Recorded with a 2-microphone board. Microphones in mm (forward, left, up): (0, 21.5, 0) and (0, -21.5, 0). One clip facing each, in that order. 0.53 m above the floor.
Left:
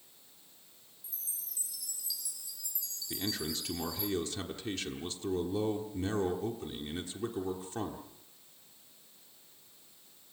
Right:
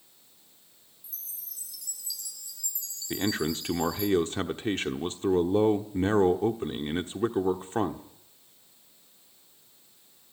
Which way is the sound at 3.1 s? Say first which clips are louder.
Right 8 dB; 45° right (ahead or behind).